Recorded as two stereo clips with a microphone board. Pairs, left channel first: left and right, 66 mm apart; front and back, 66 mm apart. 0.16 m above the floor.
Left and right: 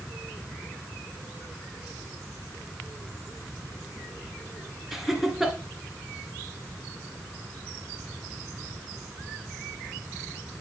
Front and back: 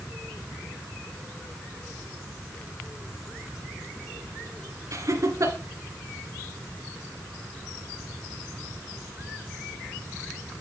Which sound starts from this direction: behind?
Laughter, at 4.9 s.